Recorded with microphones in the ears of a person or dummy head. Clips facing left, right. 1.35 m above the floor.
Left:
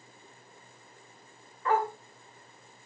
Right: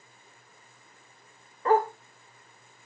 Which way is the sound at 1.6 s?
35° right (ahead or behind).